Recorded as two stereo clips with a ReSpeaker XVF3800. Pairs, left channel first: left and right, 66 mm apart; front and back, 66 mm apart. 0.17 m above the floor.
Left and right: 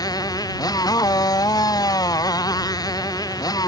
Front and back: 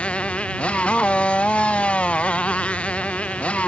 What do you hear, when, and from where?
0.0 s a motorcycle: 70° left